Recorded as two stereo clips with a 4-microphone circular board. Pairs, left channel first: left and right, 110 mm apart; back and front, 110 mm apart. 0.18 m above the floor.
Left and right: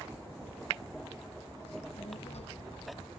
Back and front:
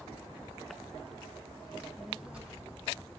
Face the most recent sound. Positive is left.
turn(degrees=70)